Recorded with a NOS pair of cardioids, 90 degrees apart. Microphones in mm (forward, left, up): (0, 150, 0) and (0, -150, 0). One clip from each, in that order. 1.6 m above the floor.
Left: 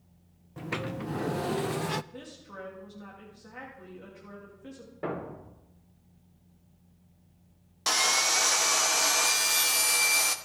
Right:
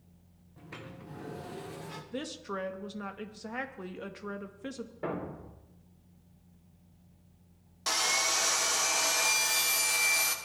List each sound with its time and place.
0.6 s a sliding door: 65° left, 0.6 m
2.1 s a woman speaking: 65° right, 2 m
5.0 s a thud: 20° left, 3 m
7.9 s sawing: 30° left, 1.2 m